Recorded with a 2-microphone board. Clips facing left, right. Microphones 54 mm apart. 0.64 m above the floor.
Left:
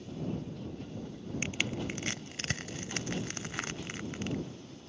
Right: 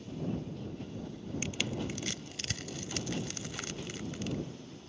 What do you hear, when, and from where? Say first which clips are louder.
1.4 s crushing: left 2 dB; 40° left (ahead or behind)